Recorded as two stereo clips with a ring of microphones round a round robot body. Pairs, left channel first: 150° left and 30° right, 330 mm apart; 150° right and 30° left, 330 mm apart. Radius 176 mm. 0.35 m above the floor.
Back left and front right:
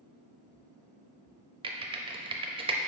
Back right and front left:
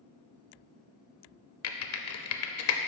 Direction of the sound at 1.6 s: 105° right.